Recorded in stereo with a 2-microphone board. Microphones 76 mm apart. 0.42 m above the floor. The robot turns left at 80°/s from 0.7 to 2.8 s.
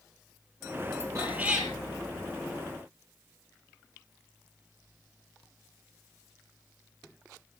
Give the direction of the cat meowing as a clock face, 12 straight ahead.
5 o'clock.